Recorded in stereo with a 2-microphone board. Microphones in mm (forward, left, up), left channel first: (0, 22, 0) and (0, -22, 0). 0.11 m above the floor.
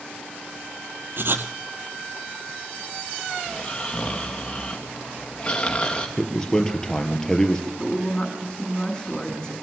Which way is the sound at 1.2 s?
60° right (ahead or behind).